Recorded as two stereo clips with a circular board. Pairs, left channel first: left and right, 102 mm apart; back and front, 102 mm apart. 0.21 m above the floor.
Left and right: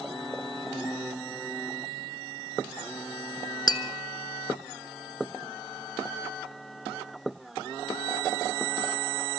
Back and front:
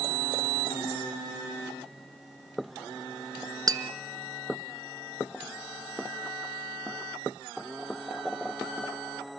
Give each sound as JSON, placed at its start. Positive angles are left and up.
{"t": 3.7, "sound": "tapping", "azimuth_deg": 50, "distance_m": 1.1}